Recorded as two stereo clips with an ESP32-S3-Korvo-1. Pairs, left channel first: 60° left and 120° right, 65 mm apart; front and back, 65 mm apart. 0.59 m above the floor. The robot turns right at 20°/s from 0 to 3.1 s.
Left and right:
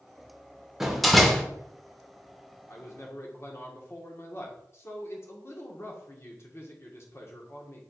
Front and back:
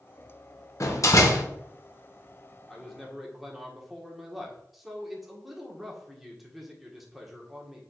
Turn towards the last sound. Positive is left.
turn(degrees=90)